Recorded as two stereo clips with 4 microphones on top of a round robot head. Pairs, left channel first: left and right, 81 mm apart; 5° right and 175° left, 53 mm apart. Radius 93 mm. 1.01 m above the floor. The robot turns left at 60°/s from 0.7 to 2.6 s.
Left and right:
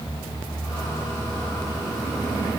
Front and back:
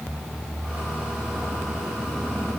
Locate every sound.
Only background noise.